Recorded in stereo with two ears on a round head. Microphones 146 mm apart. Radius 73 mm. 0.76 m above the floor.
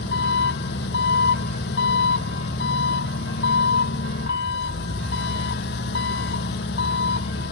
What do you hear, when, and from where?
0.0 s an engine running: 65° left (ahead or behind)